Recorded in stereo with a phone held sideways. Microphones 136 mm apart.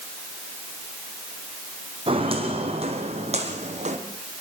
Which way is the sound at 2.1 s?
40° right (ahead or behind).